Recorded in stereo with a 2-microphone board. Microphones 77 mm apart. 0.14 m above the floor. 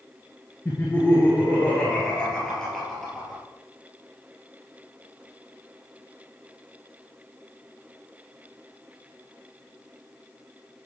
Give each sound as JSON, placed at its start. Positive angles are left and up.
{"t": 0.7, "sound": "laughter", "side_deg": 25, "distance_m": 2.5}